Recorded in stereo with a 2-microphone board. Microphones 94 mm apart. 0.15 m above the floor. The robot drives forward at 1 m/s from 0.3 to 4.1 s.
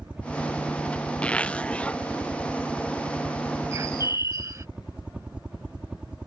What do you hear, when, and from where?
0.0 s a helicopter: 10° right (ahead or behind)
1.2 s a zipper: 15° left (ahead or behind)
3.7 s a bird: 35° right (ahead or behind)